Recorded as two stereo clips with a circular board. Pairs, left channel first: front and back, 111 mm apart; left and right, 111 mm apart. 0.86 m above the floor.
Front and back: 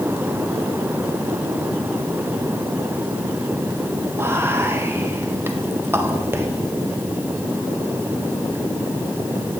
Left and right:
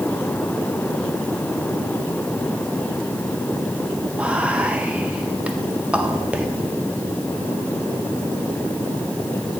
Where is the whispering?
150° right, 0.7 m.